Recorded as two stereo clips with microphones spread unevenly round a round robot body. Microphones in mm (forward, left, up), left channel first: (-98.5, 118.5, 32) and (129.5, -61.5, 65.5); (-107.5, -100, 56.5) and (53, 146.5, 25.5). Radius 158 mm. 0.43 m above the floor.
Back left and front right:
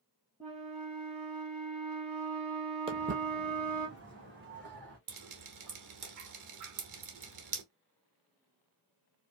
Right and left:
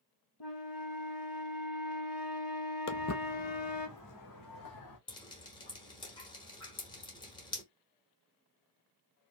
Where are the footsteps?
95° right, 0.5 m.